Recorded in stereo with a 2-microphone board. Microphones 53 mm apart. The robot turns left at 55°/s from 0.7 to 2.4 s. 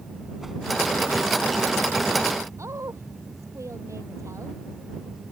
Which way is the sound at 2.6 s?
70° right (ahead or behind).